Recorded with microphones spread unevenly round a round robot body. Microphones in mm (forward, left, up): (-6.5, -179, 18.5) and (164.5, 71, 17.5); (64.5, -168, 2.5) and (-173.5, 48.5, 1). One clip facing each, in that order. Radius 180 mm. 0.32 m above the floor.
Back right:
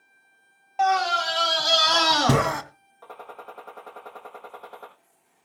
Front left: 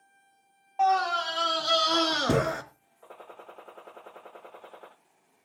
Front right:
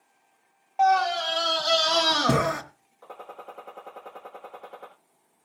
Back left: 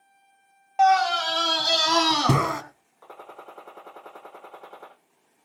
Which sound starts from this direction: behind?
A scream, at 0.8 s.